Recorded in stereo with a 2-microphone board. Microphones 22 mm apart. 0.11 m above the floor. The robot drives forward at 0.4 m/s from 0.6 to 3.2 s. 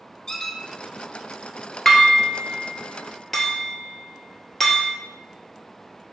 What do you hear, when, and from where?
0.3 s a squeak: 25° left (ahead or behind), 0.7 m
1.9 s dishes clattering: 15° left (ahead or behind), 1.1 m; by 4.9 s 10° left (ahead or behind), 1.5 m